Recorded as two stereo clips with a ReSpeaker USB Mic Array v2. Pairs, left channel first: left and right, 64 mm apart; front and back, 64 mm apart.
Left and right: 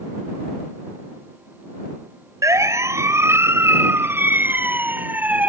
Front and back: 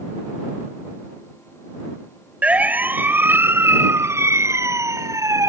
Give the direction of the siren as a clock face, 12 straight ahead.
4 o'clock.